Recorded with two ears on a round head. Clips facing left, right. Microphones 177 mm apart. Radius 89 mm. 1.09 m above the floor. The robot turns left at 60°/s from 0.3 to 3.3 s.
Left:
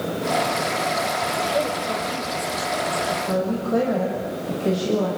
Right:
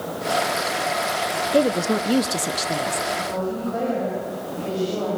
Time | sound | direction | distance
1.5 | a woman speaking | 50° right | 1.5 m
3.1 | a woman speaking | 80° left | 6.5 m